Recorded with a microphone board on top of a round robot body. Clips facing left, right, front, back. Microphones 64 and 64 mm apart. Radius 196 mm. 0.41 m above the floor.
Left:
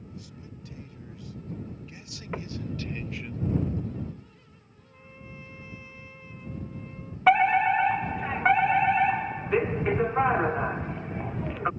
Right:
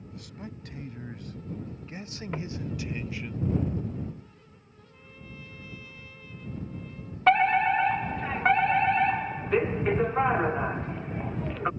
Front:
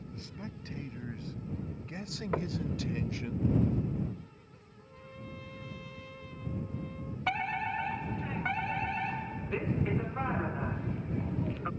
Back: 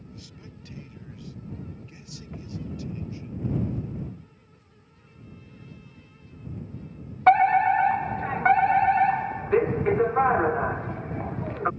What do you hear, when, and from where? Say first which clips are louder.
0.1 s a man speaking: right 3 dB, front 3 dB; 55° right; by 3.3 s 5° left
2.3 s knocking: left 1 dB, front 6 dB; 10° left
4.8 s a trumpet: left 1 dB, front 6 dB; 25° left
7.3 s a fire alarm: left 1 dB, back 16 dB; 170° left